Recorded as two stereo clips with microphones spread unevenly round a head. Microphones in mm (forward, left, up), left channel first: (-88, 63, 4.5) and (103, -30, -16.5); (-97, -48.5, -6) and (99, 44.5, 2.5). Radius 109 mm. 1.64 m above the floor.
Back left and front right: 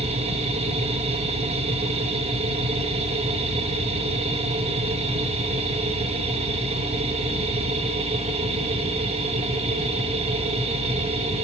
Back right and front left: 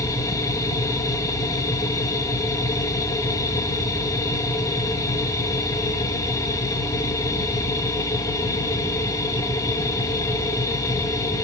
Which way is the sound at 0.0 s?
85° right.